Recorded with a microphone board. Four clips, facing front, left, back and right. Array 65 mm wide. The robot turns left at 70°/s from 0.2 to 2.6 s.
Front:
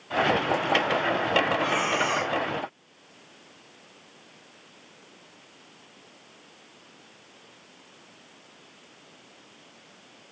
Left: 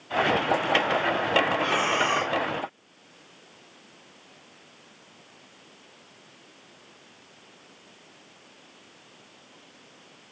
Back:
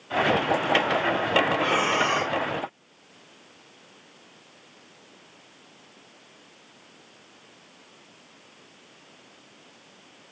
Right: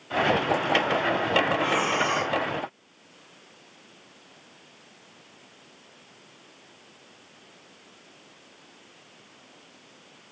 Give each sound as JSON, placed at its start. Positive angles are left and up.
{"t": 1.6, "sound": "breathing", "azimuth_deg": 170, "distance_m": 1.4}